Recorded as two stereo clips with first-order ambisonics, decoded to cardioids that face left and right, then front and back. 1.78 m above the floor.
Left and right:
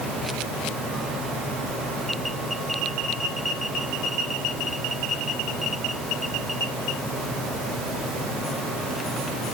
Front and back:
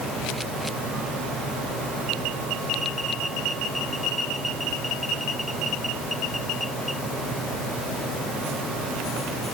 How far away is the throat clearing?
No throat clearing in this recording.